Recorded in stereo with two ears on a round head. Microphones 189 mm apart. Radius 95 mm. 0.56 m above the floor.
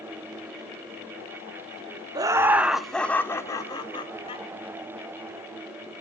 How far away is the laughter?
About 0.9 m.